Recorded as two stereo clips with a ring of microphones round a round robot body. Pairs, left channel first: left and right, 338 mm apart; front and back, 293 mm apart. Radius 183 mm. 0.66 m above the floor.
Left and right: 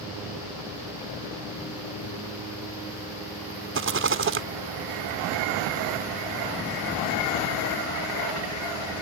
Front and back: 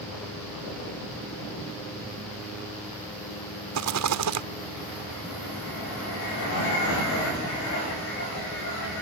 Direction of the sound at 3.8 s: 145° right.